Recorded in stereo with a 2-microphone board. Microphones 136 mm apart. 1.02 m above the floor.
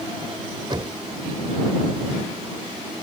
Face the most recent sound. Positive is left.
turn(degrees=-35)  # may be behind; listen again after turning